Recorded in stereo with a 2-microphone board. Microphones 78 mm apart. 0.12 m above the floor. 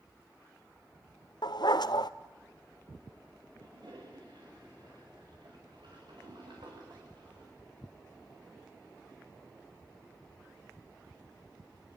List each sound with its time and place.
1.4 s a dog barking: 70° left (ahead or behind), 0.7 m
3.6 s a toilet flushing: 70° right (ahead or behind), 8 m